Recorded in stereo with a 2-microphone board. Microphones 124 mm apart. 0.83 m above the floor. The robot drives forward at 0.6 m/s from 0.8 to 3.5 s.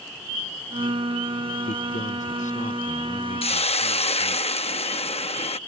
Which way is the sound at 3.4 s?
50° left (ahead or behind).